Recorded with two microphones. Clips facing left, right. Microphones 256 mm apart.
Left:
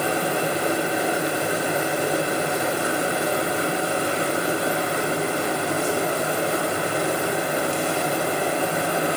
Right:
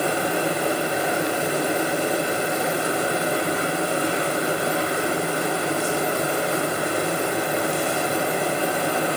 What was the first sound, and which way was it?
Only background noise.